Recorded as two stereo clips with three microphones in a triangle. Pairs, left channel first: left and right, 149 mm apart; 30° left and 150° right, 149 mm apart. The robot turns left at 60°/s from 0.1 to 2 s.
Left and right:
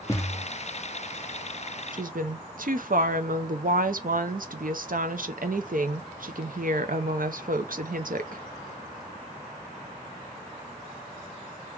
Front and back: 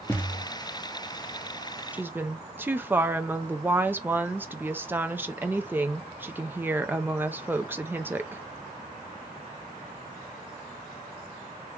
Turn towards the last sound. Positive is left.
turn(degrees=-75)